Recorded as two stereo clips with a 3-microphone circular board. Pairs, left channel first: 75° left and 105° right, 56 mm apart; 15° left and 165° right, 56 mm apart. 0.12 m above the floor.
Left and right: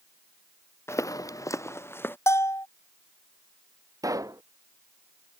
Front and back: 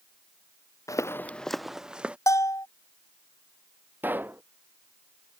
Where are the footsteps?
35° left; by 2.2 s 125° left.